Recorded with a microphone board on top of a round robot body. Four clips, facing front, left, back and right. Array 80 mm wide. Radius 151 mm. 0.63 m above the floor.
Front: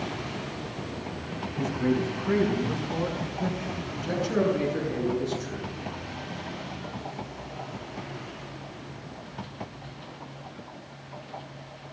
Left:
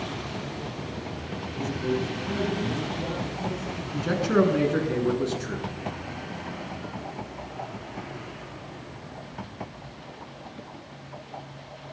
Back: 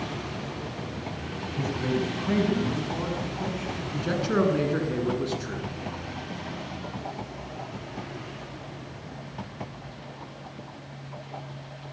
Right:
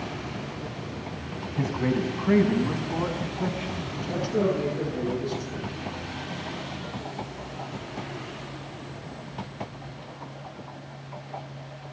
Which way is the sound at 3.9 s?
125° left.